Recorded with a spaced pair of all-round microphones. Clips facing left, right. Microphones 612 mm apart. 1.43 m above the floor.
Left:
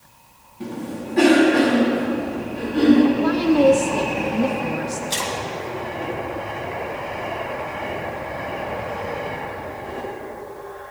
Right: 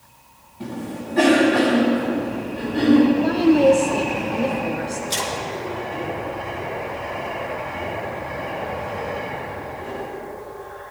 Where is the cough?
5° right (ahead or behind), 3 m.